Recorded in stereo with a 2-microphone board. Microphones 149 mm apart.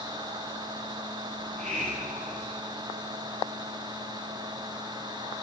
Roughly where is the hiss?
Right.